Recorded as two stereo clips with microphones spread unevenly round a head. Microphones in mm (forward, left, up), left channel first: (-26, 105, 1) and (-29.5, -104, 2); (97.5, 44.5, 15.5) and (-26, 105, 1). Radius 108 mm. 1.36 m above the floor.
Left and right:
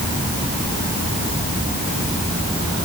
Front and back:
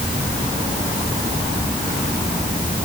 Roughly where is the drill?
No drill in this recording.